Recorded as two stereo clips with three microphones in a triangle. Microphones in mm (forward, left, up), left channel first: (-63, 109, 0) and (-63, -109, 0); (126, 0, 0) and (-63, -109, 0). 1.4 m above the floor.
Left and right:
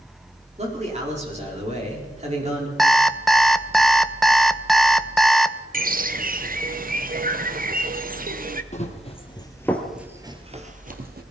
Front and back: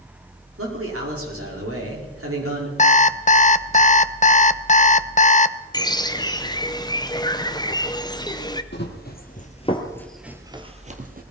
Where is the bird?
45° right, 0.8 m.